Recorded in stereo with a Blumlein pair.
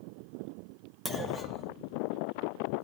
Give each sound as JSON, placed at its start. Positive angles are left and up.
{"t": 1.1, "sound": "a clunk", "azimuth_deg": 0, "distance_m": 1.2}